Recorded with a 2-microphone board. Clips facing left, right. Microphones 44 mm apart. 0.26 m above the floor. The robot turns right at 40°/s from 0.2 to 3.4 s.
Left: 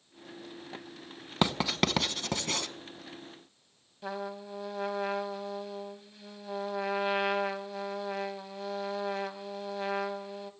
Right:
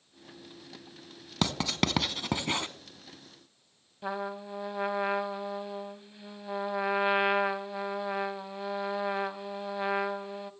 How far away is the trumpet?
About 0.7 m.